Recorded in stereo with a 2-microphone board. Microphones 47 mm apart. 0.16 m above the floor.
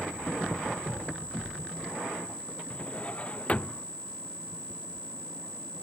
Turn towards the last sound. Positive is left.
turn(degrees=30)  # may be behind; listen again after turning